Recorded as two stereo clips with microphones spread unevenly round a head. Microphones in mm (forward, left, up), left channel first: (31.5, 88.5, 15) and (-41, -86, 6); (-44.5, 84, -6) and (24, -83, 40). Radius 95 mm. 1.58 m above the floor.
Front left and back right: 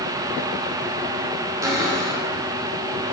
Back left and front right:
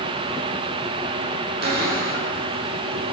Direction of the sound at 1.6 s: 40° right.